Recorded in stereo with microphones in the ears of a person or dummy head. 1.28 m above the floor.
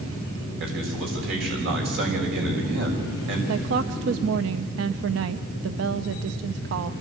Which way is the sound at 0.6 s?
70° right (ahead or behind).